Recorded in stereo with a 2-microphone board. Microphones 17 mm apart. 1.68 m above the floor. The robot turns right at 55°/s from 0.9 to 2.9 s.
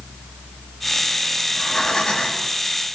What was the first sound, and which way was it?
Breathing, 20° left.